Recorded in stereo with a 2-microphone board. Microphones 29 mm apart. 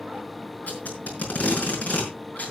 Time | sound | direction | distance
0.7 | tape being pulled | 55° left (ahead or behind) | 5.5 m